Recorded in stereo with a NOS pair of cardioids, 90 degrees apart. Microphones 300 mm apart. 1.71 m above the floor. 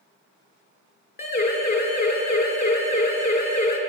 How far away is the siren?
About 7 m.